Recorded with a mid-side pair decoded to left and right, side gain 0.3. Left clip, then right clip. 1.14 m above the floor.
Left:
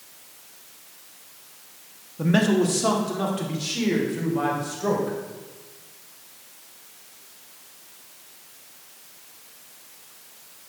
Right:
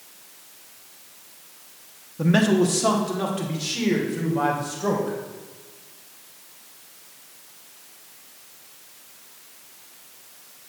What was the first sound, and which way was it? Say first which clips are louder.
A man speaking: right 1 dB; 15° right.